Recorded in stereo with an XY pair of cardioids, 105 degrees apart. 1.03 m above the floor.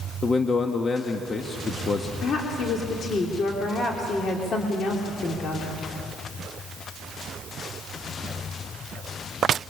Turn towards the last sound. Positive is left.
turn(degrees=50)